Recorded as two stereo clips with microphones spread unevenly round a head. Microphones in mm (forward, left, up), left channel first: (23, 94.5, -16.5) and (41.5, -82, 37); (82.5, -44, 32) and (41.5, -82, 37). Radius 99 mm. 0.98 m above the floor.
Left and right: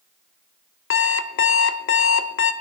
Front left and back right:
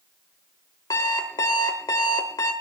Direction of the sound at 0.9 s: 75° left.